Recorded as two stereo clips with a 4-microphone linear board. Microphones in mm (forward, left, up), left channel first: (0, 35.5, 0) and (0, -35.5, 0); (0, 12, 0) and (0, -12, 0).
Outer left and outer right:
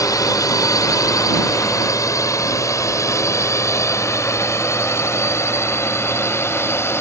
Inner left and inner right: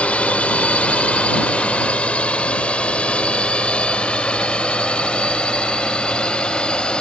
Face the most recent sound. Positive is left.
turn(degrees=40)  # may be behind; listen again after turning